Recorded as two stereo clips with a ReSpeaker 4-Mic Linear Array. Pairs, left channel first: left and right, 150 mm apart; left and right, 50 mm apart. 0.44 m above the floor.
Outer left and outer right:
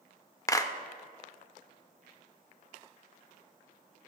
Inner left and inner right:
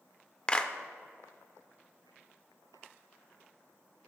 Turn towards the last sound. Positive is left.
turn(degrees=20)  # may be behind; listen again after turning